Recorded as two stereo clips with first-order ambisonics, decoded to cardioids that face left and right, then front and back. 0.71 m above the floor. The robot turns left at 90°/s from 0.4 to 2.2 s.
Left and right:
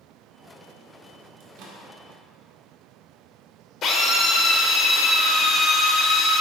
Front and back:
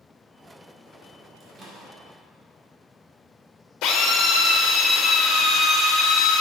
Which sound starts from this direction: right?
A microwave, at 1.4 s.